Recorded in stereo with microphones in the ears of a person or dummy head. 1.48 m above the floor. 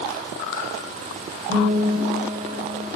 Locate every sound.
1.5 s a guitar: 35° right (ahead or behind), 6.5 m